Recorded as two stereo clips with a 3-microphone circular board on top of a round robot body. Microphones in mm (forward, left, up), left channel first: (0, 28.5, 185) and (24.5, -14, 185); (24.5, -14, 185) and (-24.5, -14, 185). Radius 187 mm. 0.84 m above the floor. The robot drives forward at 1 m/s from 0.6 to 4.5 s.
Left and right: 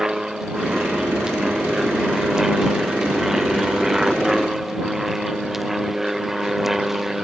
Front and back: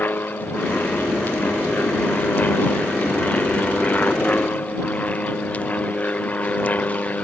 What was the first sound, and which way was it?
An aircraft, 15° left.